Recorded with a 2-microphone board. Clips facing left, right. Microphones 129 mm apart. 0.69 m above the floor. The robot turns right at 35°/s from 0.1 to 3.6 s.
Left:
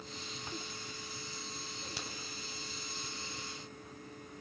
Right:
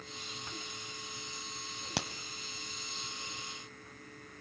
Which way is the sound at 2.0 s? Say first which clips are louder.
Right 11 dB; 75° right (ahead or behind).